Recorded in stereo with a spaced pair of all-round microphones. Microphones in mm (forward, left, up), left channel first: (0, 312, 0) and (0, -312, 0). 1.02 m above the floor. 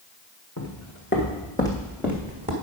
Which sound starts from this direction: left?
Footsteps, at 0.6 s.